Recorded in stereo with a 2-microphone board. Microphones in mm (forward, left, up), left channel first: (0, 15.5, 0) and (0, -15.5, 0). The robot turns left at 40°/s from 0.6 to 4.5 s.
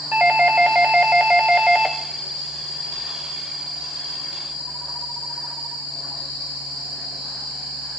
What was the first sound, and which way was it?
A doorbell, 95° right.